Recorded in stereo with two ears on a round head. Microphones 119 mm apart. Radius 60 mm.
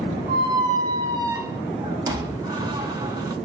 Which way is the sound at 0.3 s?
30° right (ahead or behind).